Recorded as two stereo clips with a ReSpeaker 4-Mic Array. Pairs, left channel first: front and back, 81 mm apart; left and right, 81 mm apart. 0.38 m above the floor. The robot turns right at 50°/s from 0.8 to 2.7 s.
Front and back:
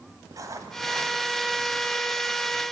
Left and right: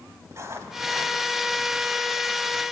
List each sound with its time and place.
0.3 s writing: 140° right, 1.8 m; by 1.2 s 120° right, 1.8 m